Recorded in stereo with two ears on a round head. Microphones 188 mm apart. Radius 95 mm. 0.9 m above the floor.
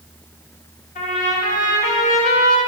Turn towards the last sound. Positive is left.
turn(degrees=40)  # may be behind; listen again after turning